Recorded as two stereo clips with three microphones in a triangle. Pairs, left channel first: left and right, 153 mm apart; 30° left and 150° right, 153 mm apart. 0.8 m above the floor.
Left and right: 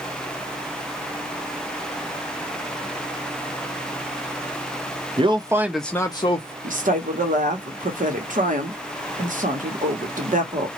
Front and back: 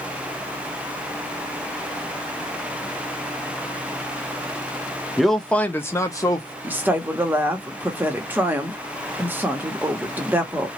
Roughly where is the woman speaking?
Right.